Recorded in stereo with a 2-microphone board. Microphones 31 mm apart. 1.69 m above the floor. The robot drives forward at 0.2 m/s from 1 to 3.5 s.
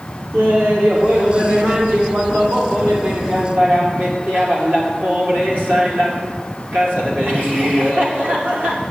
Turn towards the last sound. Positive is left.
turn(degrees=-80)